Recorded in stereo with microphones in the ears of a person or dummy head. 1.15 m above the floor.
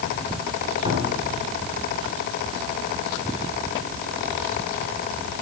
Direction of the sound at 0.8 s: 25° right (ahead or behind).